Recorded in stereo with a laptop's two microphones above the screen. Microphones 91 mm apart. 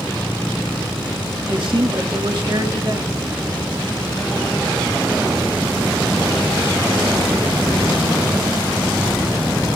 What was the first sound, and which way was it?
A man speaking, 60° right (ahead or behind).